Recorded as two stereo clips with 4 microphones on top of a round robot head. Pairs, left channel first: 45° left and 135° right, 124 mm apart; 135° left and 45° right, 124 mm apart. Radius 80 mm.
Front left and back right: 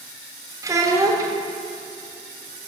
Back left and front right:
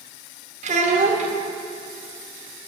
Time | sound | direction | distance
0.6 | a child speaking | 70° right | 1.3 m